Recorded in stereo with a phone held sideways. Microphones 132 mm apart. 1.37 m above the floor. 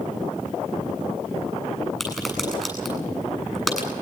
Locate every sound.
2.0 s a crack: centre (ahead or behind), 9 m